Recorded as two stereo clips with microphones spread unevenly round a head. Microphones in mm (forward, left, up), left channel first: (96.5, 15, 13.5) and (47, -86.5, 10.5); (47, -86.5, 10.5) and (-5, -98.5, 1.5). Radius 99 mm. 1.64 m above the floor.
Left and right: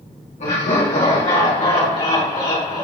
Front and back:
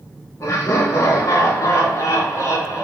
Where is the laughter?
55° left, 2.5 m; by 2.9 s 25° left, 3.5 m.